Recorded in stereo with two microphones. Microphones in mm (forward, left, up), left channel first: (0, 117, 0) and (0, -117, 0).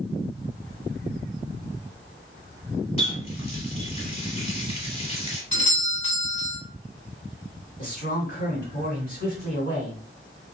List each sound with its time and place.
3.0 s a running tap: 25° left (ahead or behind), 0.9 m
5.5 s a doorbell: 20° right (ahead or behind), 1.8 m
7.8 s a man speaking: 45° left (ahead or behind), 1.9 m